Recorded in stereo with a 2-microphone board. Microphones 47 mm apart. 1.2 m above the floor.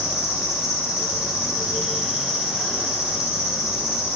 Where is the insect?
15° right (ahead or behind), 1.2 m.